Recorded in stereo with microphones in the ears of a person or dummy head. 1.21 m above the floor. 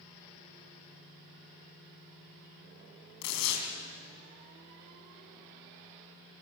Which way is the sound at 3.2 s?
75° left (ahead or behind).